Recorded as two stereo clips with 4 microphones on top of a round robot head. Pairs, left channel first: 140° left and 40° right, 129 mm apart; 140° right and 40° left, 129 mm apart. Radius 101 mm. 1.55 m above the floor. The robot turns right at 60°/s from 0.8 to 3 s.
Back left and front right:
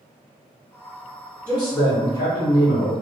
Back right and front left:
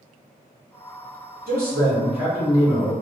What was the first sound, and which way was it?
A man speaking, 65° left.